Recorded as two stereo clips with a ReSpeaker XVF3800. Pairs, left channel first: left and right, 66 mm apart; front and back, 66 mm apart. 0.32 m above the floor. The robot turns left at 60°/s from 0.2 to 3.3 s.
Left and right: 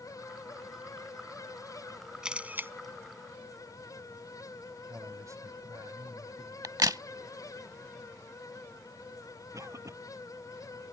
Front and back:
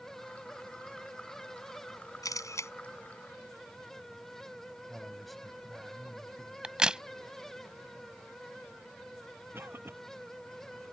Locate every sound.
2.2 s a camera shutter: 10° right; by 2.7 s 40° right
4.9 s a man speaking: 90° right
6.6 s a crack: 105° right
9.5 s a cough: 130° right